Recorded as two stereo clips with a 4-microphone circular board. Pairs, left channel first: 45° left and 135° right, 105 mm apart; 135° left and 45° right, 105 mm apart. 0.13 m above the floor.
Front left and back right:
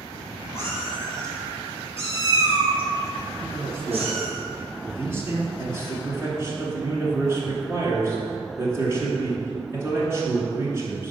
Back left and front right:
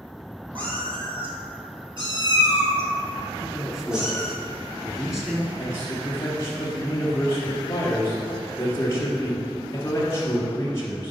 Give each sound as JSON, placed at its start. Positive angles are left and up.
{"t": 0.6, "sound": "a cat meowing", "azimuth_deg": -20, "distance_m": 2.0}
{"t": 3.4, "sound": "a man speaking", "azimuth_deg": -130, "distance_m": 1.1}
{"t": 5.6, "sound": "a man speaking", "azimuth_deg": 180, "distance_m": 1.3}